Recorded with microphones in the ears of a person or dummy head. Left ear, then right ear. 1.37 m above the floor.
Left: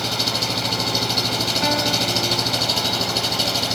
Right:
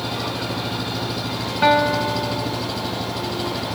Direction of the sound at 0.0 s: 70° left (ahead or behind).